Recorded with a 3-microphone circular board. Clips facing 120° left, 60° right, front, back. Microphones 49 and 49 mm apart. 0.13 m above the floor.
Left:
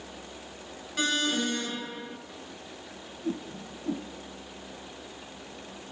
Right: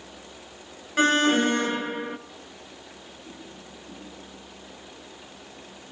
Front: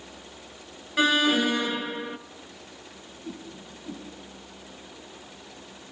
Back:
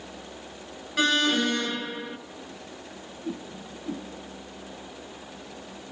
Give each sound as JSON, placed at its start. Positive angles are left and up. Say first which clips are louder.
{"t": 1.0, "sound": "an alarm", "louder": "right 8 dB, front 2 dB", "azimuth_deg": -80, "distance_m": 1.1}
{"t": 3.2, "sound": "a whoosh", "louder": "left 13 dB, back 4 dB", "azimuth_deg": 110, "distance_m": 3.0}